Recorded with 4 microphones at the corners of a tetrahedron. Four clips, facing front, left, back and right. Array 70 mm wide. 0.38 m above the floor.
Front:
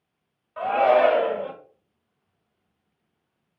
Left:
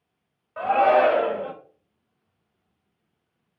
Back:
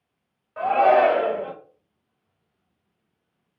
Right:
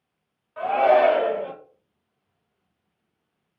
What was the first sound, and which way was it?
A shout, 130° left.